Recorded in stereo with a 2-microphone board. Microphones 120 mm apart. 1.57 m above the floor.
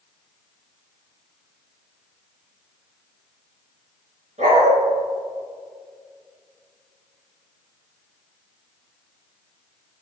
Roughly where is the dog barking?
Right.